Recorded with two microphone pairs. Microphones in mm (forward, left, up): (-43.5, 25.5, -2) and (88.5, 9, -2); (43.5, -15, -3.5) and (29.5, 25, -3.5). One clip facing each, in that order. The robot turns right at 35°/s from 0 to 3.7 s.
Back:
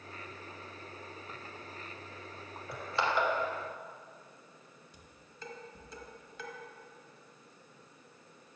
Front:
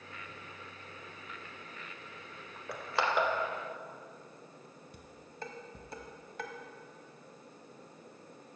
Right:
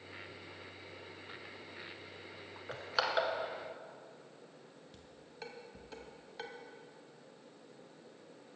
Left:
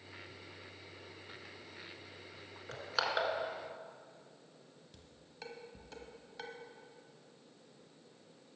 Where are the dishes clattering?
10° left, 1.1 m.